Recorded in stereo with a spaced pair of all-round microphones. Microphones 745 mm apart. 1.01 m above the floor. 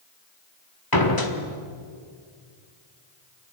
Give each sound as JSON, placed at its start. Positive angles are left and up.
{"t": 0.9, "sound": "a door slam", "side_deg": 30, "distance_m": 2.0}